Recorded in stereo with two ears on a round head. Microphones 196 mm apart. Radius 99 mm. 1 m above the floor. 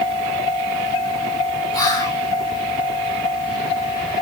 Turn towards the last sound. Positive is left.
turn(degrees=15)  # may be behind; listen again after turning